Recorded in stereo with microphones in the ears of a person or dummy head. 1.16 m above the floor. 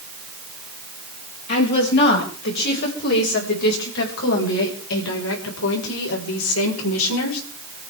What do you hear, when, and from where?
1.5 s a woman speaking: 60° left (ahead or behind), 6.5 m; by 7.4 s 85° left, 5 m